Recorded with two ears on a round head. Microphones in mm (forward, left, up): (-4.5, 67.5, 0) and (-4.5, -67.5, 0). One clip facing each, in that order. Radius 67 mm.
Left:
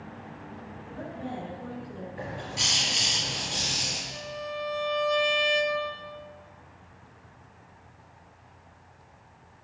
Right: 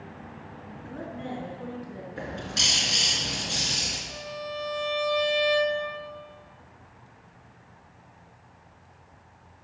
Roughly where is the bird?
Right.